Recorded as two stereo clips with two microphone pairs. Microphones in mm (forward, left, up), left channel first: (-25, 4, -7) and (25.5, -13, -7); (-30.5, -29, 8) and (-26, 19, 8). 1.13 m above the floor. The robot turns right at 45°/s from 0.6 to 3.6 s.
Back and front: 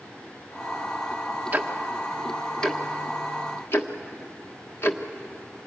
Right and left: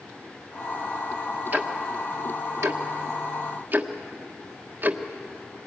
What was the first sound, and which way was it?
Ticking, 35° left.